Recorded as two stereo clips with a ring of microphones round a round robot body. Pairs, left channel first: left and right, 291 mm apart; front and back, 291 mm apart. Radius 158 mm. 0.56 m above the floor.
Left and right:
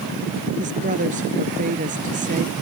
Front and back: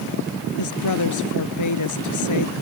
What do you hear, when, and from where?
0.6 s a woman speaking: 20° right